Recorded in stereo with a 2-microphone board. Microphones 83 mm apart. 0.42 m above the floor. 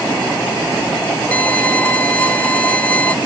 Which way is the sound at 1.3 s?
15° left (ahead or behind).